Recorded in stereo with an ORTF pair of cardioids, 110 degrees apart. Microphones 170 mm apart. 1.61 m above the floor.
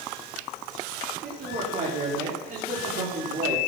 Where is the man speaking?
50° right, 5.5 m.